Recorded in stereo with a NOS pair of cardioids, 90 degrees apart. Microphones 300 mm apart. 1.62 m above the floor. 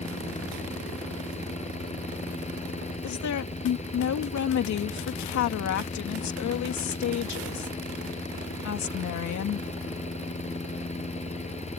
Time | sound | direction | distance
0.0 | a fan | 20° left | ?
3.0 | a woman speaking | 65° left | ?